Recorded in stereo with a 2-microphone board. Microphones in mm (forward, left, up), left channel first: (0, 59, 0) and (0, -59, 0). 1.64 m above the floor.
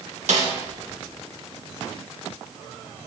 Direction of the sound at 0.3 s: 75° right (ahead or behind).